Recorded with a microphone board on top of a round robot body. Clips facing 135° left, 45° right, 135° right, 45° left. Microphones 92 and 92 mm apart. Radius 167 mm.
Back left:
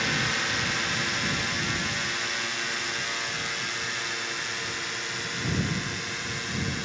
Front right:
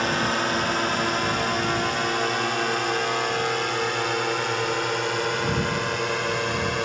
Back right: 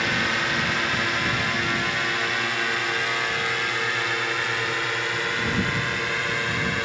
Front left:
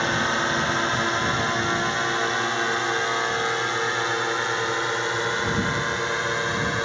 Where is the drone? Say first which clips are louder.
Front right 6 dB, front left 2 dB; 10° right; by 6.9 s 20° right.